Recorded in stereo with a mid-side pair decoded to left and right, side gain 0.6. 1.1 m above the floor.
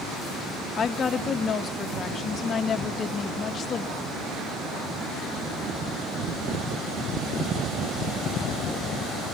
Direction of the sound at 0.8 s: 40° left.